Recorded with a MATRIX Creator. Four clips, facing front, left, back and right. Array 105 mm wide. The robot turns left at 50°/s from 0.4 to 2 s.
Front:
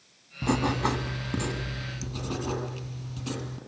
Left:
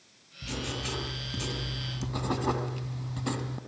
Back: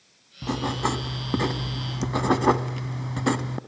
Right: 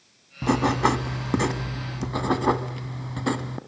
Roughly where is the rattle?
I don't hear a rattle.